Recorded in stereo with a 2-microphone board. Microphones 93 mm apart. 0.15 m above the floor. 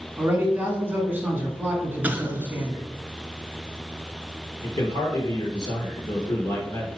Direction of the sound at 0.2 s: 20° right (ahead or behind).